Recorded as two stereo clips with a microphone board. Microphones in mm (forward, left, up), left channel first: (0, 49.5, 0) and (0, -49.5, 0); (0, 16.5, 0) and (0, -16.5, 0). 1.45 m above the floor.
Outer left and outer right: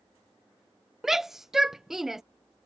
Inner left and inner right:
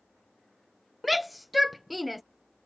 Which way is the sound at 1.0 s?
5° right (ahead or behind).